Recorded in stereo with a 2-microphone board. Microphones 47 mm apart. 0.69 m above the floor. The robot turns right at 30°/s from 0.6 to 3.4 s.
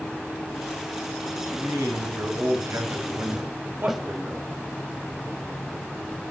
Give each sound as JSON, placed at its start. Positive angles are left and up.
{"t": 1.3, "sound": "a man speaking", "azimuth_deg": -110, "distance_m": 4.5}
{"t": 3.9, "sound": "a snare drum", "side_deg": -5, "distance_m": 1.3}